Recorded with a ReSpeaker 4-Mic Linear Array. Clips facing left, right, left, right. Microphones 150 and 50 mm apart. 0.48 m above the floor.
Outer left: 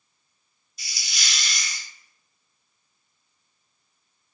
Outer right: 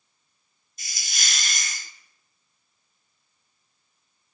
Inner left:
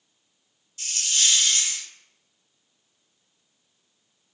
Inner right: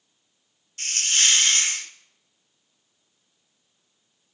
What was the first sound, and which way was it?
A hiss, 50° right (ahead or behind).